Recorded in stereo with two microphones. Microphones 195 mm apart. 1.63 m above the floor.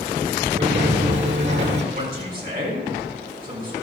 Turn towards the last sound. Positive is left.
turn(degrees=-50)  # may be behind; listen again after turning